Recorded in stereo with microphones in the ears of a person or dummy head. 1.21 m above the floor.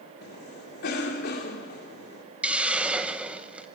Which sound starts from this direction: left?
A cough, at 0.2 s.